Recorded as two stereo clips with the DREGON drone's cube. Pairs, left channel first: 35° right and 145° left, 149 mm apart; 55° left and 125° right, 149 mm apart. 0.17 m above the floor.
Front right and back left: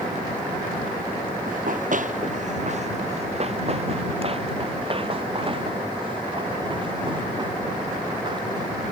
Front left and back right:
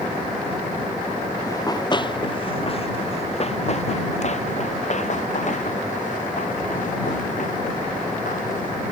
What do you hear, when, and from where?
1.5 s running footsteps: 125° left; by 8.7 s 85° left